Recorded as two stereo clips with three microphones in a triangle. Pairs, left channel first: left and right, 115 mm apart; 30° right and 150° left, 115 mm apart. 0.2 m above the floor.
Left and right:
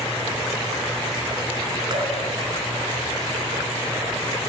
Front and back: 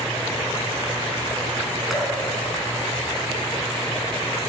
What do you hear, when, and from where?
1.9 s dripping: 125° right, 1.2 m